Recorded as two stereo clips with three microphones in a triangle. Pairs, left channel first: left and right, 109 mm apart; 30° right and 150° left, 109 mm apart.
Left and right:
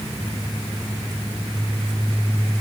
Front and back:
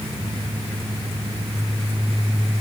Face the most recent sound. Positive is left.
No sound to turn to.